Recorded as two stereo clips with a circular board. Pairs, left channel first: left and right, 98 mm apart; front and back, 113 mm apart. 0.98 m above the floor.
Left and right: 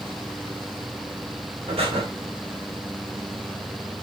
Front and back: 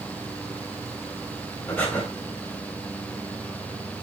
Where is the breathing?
75° right, 4 m.